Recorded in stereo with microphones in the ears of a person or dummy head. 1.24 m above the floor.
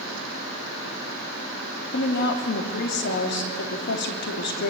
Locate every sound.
1.9 s a woman speaking: 60° left (ahead or behind), 2.5 m